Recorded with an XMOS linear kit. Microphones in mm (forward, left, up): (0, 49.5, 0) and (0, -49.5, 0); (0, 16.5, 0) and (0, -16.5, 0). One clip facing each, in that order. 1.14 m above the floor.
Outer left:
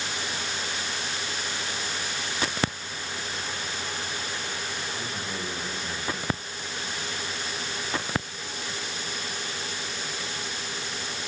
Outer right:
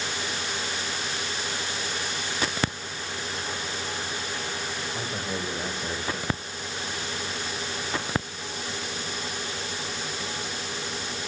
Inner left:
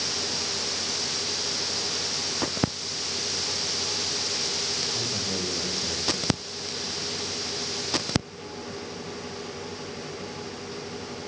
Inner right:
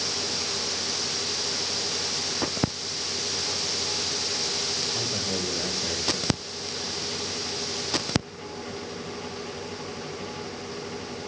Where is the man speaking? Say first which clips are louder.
Outer right 2 dB, inner right 1 dB; 50° right (ahead or behind), 6.5 m.